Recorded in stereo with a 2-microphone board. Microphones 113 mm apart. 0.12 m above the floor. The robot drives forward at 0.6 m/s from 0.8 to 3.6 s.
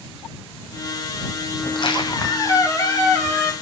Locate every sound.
1.6 s a squeak: 55° left (ahead or behind), 0.5 m; by 3.5 s 20° left (ahead or behind), 1.5 m